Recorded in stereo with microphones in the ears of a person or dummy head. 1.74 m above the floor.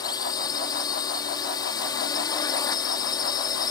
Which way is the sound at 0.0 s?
25° left (ahead or behind).